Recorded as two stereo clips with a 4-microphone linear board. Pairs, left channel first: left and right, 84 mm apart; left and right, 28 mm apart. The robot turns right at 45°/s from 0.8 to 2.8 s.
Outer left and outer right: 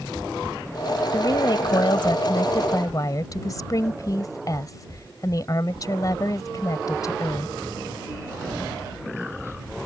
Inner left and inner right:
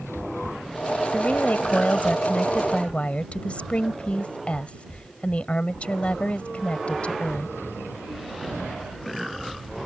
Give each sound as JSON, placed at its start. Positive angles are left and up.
{"t": 1.1, "sound": "a woman speaking", "azimuth_deg": 55}